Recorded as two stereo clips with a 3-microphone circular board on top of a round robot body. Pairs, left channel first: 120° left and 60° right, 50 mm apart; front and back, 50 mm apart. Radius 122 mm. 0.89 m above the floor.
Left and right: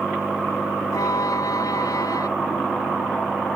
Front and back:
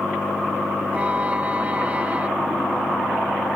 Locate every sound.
0.9 s a violin: 110° left